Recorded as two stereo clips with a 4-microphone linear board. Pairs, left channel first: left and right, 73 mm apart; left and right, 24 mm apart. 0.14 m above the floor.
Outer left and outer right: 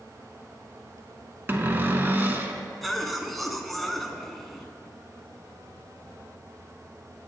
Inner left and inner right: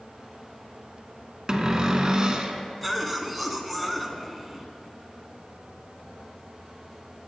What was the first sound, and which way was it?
A cupboard door, 30° right (ahead or behind).